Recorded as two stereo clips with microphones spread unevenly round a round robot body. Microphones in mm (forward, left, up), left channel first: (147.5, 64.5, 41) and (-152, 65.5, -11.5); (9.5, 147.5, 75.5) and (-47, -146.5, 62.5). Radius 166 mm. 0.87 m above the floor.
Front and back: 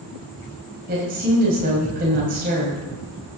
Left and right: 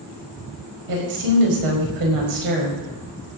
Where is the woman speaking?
115° right, 4.5 m.